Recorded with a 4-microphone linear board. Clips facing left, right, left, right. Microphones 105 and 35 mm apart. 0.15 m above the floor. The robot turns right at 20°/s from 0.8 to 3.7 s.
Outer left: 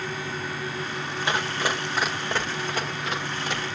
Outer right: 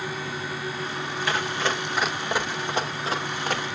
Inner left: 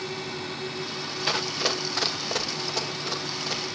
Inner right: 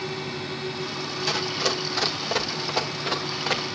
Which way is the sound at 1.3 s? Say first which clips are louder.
Even, inner right 1 dB; 25° left (ahead or behind).